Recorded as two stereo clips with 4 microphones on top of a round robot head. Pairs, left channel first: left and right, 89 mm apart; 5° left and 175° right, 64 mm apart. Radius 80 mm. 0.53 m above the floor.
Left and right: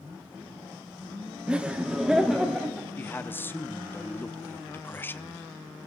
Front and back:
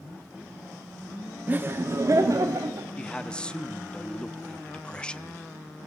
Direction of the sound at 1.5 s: 155° right.